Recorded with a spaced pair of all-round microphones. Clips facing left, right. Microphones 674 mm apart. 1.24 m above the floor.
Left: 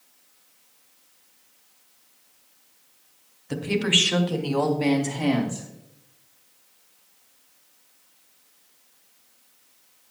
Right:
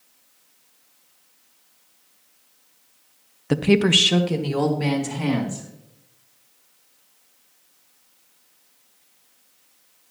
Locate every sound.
3.5 s a woman speaking: 80° right, 0.8 m; by 5.7 s 35° right (ahead or behind), 3 m